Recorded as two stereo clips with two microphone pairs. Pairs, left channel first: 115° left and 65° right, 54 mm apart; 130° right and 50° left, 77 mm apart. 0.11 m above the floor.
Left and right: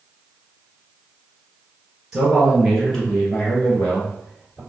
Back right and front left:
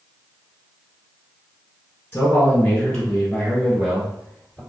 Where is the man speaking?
145° right, 1.5 m; by 4.6 s 115° left, 1.8 m.